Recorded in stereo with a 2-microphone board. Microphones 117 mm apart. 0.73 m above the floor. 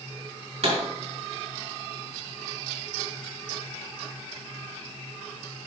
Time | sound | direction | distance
0.6 | a pop | 60° right (ahead or behind) | 4 m